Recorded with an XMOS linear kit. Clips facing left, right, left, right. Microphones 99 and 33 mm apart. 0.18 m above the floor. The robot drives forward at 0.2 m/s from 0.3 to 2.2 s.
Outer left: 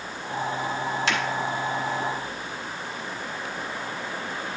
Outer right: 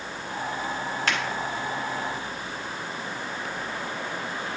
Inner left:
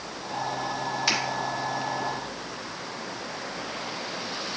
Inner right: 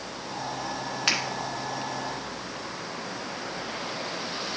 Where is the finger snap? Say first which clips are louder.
Outer left 1 dB, inner right 1 dB; 50° right (ahead or behind), 2 m.